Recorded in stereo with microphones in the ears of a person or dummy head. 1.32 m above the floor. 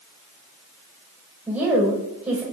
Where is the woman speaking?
10° right (ahead or behind), 5 m.